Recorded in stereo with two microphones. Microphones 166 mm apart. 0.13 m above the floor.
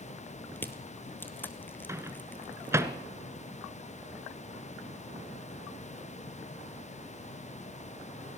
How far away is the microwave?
About 1.1 m.